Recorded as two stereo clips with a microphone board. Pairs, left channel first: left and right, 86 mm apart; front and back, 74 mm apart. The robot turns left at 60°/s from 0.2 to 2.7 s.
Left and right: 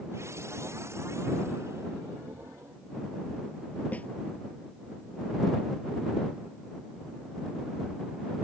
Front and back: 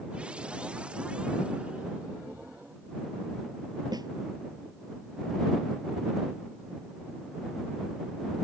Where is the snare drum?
160° left.